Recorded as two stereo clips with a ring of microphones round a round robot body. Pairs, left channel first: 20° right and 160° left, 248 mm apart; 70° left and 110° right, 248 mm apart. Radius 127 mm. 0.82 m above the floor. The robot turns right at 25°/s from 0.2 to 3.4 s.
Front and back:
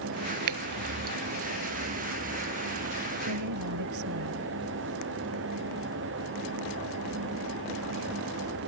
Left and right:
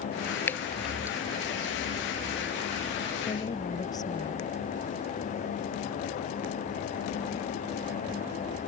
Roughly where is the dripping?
Behind left.